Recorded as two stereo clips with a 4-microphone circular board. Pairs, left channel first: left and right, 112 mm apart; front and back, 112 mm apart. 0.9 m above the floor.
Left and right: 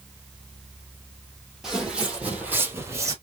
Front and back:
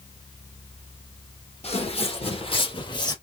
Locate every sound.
1.6 s footsteps: 5° right, 2 m; by 3.1 s 40° right, 1.3 m